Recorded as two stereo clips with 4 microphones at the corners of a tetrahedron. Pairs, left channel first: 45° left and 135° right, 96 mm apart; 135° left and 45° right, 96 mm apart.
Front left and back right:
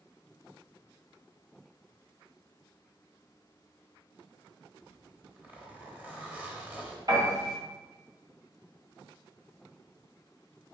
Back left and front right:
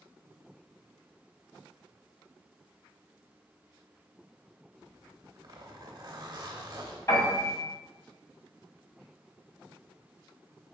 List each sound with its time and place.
4.8 s a zipper: 65° right, 0.8 m
7.1 s a piano: 170° right, 2 m